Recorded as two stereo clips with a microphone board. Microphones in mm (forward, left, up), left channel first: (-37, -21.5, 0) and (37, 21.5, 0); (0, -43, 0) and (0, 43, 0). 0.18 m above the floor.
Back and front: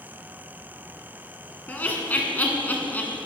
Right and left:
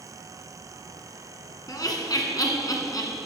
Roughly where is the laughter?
Right.